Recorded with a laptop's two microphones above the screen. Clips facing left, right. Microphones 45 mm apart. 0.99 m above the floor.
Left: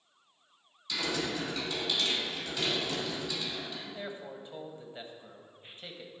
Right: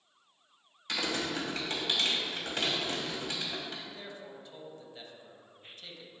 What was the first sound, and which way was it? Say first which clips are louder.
Typing on a keyboard: even; 55° right (ahead or behind).